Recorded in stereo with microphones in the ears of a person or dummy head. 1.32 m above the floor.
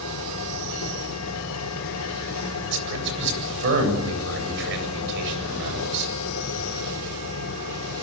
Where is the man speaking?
65° right (ahead or behind), 8.5 m.